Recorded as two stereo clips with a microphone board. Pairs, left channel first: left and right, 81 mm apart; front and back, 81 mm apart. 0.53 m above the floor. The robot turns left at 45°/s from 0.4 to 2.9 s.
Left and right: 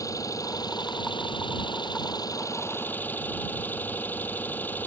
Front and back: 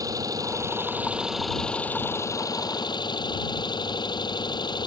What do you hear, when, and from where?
0.0 s an engine running: 135° left; by 4.9 s 25° left